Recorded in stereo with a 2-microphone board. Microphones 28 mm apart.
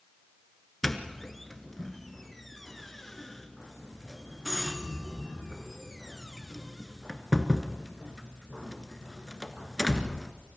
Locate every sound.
0.8 s a doorbell: 5° left (ahead or behind), 1.5 m